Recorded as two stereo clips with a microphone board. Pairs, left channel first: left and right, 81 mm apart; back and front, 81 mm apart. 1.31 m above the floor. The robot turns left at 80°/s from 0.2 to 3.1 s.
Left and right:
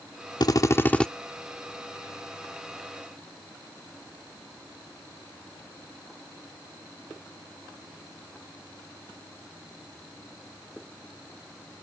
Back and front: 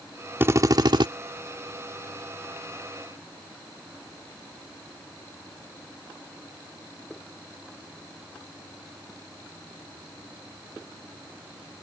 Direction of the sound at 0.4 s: 60° left.